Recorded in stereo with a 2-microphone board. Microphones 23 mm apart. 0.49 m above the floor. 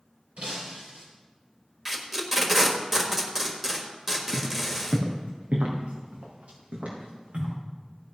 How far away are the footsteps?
About 2 m.